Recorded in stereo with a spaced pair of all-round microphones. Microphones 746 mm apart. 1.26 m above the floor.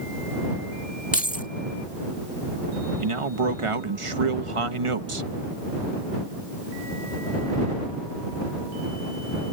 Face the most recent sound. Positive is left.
turn(degrees=-45)  # may be behind; listen again after turning